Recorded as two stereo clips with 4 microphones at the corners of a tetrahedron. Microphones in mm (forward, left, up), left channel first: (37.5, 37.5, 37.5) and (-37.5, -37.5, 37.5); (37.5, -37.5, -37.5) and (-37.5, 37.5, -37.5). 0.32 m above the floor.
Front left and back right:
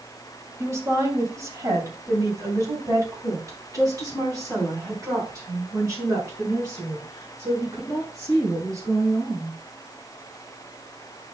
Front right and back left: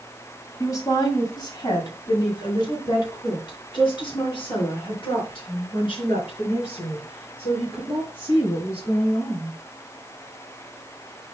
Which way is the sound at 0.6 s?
85° right.